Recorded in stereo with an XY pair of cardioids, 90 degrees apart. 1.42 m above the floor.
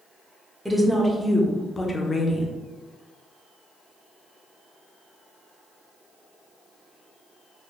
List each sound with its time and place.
0.7 s a woman speaking: straight ahead, 1.2 m; by 2.5 s 55° left, 1.0 m